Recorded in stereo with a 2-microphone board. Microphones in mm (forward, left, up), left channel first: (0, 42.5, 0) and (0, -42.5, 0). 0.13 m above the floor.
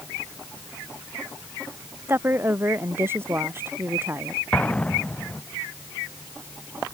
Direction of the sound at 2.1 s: 25° right (ahead or behind).